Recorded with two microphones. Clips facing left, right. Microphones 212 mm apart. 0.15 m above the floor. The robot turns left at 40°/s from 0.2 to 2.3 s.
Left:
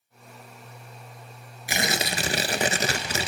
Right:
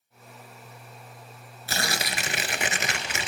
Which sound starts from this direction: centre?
Tearing paper, at 1.7 s.